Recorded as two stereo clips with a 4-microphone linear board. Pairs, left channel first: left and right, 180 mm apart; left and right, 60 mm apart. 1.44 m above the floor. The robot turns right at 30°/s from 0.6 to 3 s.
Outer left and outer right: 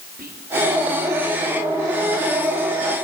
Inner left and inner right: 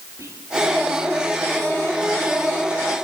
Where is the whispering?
60° right (ahead or behind), 4 m.